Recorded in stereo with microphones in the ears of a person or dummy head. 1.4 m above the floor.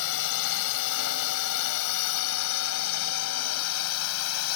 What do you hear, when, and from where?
0.0 s a drone: 70° left (ahead or behind); by 4.6 s 80° left